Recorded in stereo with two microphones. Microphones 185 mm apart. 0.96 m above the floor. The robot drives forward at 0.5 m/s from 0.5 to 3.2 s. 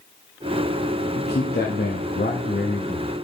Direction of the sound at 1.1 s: 65° left (ahead or behind).